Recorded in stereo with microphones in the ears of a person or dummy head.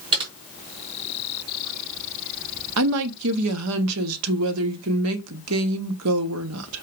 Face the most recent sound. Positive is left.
turn(degrees=-85)